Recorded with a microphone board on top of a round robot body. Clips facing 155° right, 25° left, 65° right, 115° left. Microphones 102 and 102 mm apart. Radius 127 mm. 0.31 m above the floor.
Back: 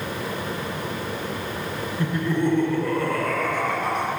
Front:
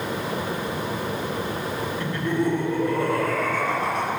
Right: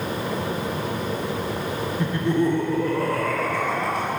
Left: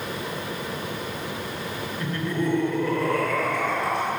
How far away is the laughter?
About 1.0 m.